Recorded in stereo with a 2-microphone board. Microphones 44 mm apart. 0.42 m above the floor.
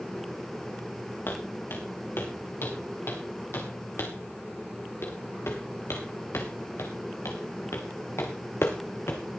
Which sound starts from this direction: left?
Footsteps, at 1.3 s.